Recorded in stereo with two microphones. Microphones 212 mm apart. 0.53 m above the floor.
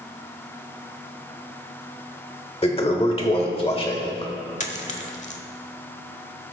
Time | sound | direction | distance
2.6 | a toilet flushing | 25° left (ahead or behind) | 1.2 m
4.6 | a dropped coin | 35° left (ahead or behind) | 1.0 m